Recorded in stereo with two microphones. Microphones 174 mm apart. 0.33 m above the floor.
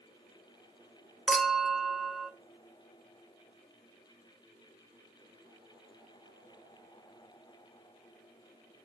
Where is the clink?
Centre (ahead or behind), 0.8 m.